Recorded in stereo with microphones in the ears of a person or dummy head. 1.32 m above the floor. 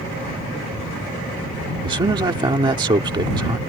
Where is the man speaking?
20° right (ahead or behind).